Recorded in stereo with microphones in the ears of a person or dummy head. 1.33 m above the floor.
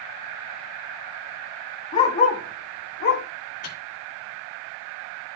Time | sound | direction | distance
1.9 | a dog barking | 35° left (ahead or behind) | 2 m
3.6 | a microwave | 35° left (ahead or behind) | 1.4 m